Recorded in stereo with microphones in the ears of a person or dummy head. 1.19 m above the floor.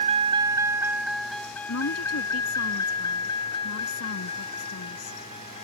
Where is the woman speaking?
80° left.